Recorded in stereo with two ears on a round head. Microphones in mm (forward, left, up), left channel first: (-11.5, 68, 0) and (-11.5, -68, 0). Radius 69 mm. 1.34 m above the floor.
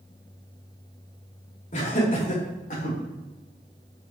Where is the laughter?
50° left (ahead or behind), 3 m; by 3.0 s 60° left (ahead or behind), 4.5 m.